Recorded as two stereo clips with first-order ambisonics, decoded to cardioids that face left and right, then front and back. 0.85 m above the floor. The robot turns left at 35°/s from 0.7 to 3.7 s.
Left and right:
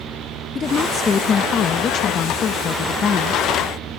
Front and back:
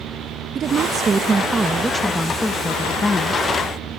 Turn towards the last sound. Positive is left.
turn(degrees=35)